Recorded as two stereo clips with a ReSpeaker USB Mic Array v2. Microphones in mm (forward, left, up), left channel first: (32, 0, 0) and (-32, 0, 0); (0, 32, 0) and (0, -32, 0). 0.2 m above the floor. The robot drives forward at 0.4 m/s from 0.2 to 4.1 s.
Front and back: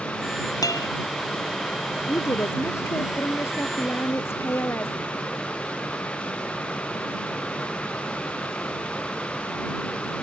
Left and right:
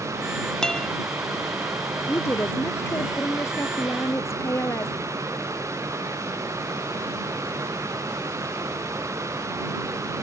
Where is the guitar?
10° left.